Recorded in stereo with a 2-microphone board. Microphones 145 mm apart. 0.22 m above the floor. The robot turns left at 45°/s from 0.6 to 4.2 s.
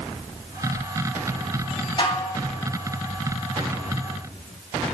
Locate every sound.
2.0 s dishes clattering: 35° left (ahead or behind), 1.1 m; by 2.4 s 40° left (ahead or behind), 1.1 m